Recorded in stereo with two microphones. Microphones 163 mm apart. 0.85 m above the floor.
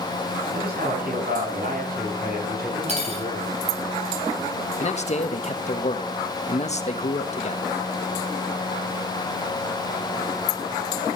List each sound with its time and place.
0.5 s a man speaking: 65° right (ahead or behind), 7 m; by 3.5 s 70° right (ahead or behind), 9.5 m
2.9 s cutlery clinking: 45° right (ahead or behind), 4 m
4.8 s a man speaking: 45° left (ahead or behind), 1.3 m